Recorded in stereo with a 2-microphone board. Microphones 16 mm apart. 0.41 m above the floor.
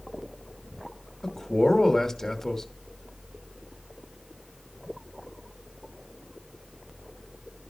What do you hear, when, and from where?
1.2 s a man speaking: 30° left (ahead or behind), 1.1 m